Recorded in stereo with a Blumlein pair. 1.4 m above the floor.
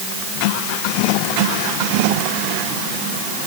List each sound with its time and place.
Only background noise.